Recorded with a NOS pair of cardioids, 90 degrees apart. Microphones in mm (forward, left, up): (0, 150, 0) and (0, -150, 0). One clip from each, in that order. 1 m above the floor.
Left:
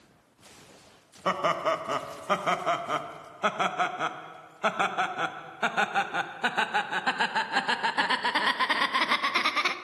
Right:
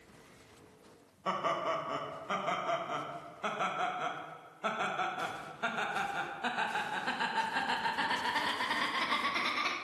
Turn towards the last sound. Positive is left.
turn(degrees=45)